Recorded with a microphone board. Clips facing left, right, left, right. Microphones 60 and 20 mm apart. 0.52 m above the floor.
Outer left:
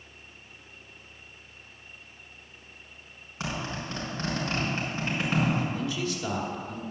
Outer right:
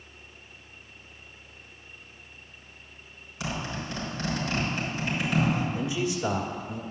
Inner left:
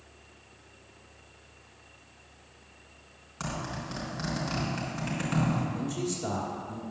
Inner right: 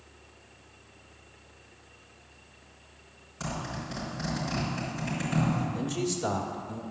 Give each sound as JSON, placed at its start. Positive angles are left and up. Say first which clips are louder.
{"t": 3.4, "sound": "a zipper", "louder": "even, even", "side_deg": 35, "distance_m": 4.0}
{"t": 5.8, "sound": "a man speaking", "louder": "outer right 2 dB, inner right 2 dB", "side_deg": -20, "distance_m": 1.3}